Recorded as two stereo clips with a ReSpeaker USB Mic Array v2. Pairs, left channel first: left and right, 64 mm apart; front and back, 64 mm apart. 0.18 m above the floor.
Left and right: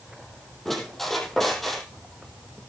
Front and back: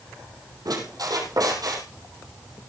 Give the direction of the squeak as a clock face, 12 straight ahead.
6 o'clock.